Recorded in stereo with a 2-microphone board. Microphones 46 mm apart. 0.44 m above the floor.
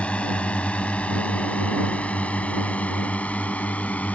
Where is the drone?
25° left (ahead or behind); by 4.2 s 30° left (ahead or behind).